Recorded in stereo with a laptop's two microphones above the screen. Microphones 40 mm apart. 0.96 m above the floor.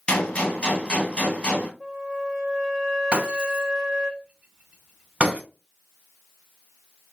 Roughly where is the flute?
Centre.